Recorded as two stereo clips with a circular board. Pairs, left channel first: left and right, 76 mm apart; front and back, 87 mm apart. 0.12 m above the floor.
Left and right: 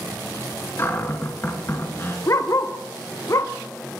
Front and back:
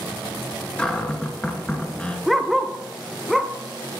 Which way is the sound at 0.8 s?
70° left.